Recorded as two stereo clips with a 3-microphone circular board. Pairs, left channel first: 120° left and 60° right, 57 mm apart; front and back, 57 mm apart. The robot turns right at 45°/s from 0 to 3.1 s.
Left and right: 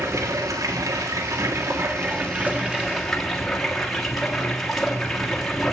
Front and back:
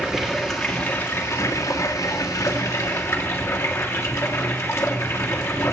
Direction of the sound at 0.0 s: 105° right.